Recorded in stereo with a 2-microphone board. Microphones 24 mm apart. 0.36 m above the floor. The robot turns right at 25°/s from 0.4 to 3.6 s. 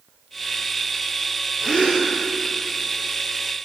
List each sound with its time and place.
1.6 s a gasp: 5° right (ahead or behind), 2.5 m; by 2.1 s 20° right (ahead or behind), 2.5 m